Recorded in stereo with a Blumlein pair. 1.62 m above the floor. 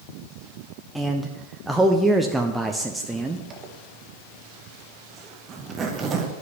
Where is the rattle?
I don't hear a rattle.